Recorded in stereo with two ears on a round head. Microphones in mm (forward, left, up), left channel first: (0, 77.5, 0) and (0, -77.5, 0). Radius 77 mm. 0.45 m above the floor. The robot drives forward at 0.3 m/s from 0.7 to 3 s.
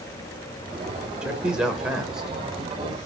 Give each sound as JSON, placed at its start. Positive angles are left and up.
{"t": 1.2, "sound": "a man speaking", "side_deg": -5, "distance_m": 1.3}